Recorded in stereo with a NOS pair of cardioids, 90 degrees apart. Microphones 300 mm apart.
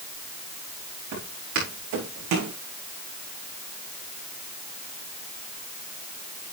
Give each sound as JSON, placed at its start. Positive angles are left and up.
{"t": 1.1, "sound": "footsteps", "azimuth_deg": -70, "distance_m": 5.5}